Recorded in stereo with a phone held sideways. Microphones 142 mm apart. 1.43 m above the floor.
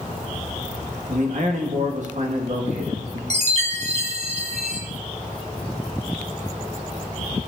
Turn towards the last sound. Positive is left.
turn(degrees=-50)  # may be behind; listen again after turning